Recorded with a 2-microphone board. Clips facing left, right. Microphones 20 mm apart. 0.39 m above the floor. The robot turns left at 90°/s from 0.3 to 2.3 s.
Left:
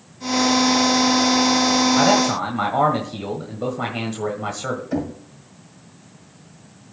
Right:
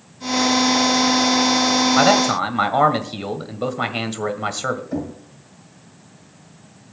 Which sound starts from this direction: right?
A man speaking, at 2.0 s.